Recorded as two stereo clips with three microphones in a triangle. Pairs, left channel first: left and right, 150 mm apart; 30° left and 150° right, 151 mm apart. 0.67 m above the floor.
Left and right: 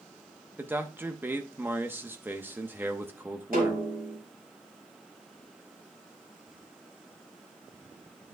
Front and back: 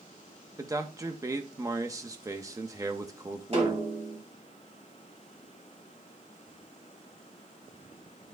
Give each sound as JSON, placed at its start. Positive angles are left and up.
{"t": 0.6, "sound": "a man speaking", "azimuth_deg": -140, "distance_m": 0.8}
{"t": 3.5, "sound": "a snare drum", "azimuth_deg": -105, "distance_m": 4.0}